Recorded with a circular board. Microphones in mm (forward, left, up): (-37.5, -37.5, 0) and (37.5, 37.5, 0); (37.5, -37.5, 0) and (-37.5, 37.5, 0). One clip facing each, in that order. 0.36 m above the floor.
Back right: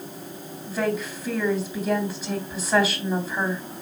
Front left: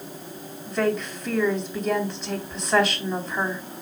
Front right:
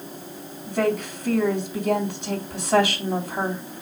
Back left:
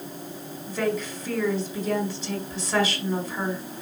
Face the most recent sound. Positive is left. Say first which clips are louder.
# front left 2 dB, front right 4 dB
turn(degrees=-50)